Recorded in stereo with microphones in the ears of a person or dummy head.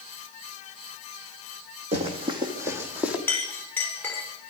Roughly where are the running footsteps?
Right.